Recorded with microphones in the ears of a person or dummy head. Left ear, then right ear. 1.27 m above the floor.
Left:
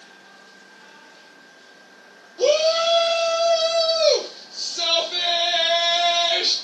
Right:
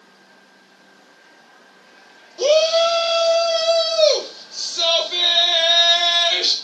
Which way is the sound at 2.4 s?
15° right (ahead or behind).